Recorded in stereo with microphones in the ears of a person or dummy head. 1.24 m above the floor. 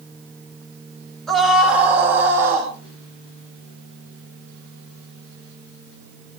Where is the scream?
Centre (ahead or behind), 3.5 m; by 2.7 s 15° right (ahead or behind), 4 m.